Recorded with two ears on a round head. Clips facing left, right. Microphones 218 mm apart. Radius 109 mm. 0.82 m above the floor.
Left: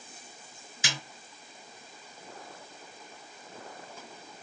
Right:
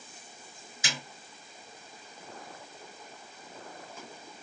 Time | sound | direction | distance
0.8 | a snare drum | 55° left (ahead or behind) | 2 m